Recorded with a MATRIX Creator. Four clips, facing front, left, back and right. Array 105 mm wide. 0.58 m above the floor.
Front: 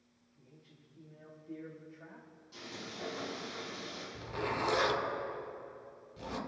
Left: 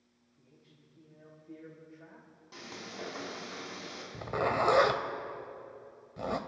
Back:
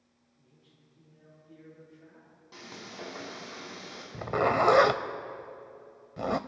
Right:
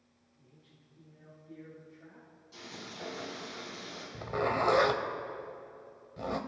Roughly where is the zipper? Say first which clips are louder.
Left 1 dB, back 11 dB; behind.